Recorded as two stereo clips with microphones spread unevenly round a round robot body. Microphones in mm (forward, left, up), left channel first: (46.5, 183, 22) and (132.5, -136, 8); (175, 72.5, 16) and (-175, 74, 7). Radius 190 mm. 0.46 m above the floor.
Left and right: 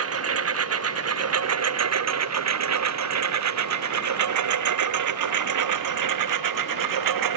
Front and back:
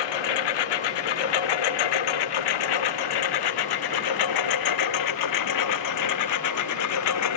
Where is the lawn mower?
30° right; by 7.4 s 50° right.